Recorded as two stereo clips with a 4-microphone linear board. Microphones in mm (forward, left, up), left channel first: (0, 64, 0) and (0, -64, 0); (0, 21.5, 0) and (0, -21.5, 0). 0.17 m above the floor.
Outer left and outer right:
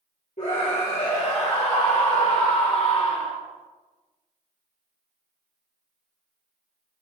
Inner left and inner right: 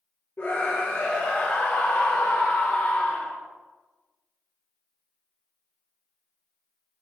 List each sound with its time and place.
0.4 s a scream: 60° left (ahead or behind), 4.5 m; by 3.3 s 40° left (ahead or behind), 3 m